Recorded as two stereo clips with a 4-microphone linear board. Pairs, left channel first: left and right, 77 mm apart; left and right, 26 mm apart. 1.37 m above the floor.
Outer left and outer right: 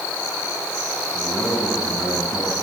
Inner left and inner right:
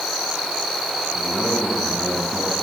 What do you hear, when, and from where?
1.1 s a man speaking: 20° left (ahead or behind), 6 m